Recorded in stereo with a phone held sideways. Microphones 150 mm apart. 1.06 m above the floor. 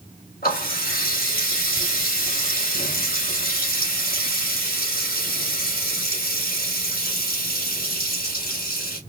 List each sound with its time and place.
0.4 s a running tap: 85° left, 3 m